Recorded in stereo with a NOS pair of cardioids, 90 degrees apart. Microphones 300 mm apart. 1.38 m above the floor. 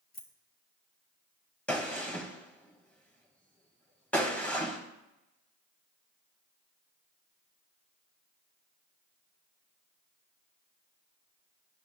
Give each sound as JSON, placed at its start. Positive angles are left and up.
{"t": 0.1, "sound": "keys jangling", "azimuth_deg": 30, "distance_m": 1.9}
{"t": 1.7, "sound": "a gunshot", "azimuth_deg": 5, "distance_m": 1.7}